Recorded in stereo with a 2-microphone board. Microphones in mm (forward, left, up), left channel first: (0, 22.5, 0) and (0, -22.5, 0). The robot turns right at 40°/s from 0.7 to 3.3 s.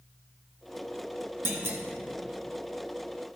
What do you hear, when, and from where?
1.4 s a clunk: 55° right (ahead or behind), 1.2 m; by 1.8 s 70° right (ahead or behind), 1.2 m